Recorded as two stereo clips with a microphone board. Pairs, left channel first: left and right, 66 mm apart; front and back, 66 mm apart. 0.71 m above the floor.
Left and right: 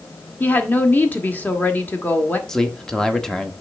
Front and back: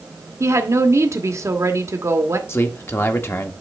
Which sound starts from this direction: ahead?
A man speaking, at 2.5 s.